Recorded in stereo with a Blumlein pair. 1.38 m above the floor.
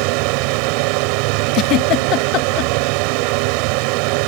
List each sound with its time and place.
0.0 s a fan: 45° right
1.5 s a giggle: 35° left